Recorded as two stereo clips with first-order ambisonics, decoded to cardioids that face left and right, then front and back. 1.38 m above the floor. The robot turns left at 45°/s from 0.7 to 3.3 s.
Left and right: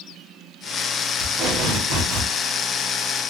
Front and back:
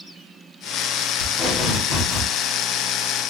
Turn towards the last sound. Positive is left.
turn(degrees=-120)